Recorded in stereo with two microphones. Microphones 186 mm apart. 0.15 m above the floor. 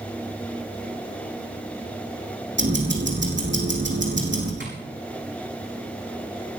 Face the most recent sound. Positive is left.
turn(degrees=-75)  # may be behind; listen again after turning